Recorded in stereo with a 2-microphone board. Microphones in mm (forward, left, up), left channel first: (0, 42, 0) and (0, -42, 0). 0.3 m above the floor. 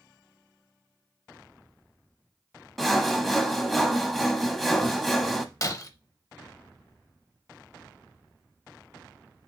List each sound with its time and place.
2.8 s sawing: centre (ahead or behind), 0.7 m
5.6 s breaking glass: 40° left (ahead or behind), 0.6 m